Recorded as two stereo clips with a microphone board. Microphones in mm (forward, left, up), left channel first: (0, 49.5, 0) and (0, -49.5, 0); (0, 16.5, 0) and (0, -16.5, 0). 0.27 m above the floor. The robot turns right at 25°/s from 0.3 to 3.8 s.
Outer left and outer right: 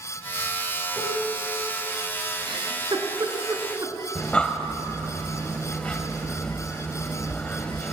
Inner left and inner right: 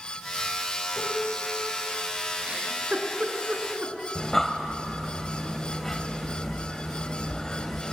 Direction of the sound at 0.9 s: 5° left (ahead or behind).